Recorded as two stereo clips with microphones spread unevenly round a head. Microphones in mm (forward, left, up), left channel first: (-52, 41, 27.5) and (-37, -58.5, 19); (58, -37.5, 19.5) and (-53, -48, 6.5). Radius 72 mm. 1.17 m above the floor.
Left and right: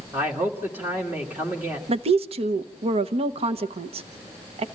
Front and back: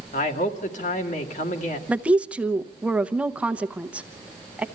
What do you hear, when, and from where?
0.1 s a man speaking: 5° right, 2.0 m
1.9 s a woman speaking: 95° right, 0.9 m